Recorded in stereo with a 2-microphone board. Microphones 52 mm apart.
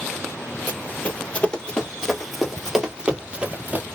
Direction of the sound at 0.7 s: 35° left (ahead or behind).